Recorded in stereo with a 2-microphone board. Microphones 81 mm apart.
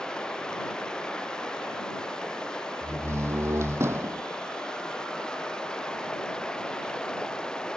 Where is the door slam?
35° right (ahead or behind).